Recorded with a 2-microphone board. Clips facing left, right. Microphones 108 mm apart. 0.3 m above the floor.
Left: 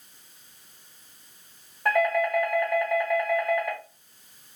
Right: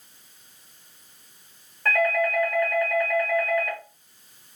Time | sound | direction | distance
1.9 | a doorbell | 10° left (ahead or behind) | 1.6 m